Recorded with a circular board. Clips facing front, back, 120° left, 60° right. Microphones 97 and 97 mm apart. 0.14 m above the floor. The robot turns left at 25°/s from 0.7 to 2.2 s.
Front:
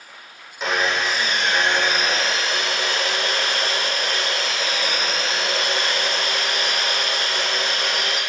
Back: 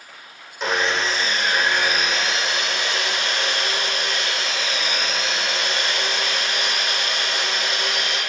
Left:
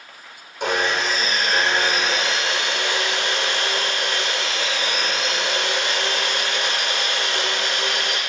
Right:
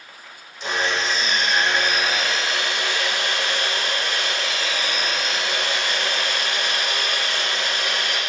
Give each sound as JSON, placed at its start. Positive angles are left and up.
{"t": 0.6, "sound": "sawing", "azimuth_deg": 90, "distance_m": 1.1}